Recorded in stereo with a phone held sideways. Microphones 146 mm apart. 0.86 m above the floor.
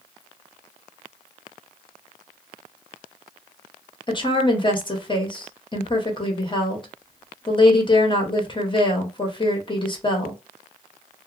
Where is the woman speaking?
35° left (ahead or behind), 1.0 m.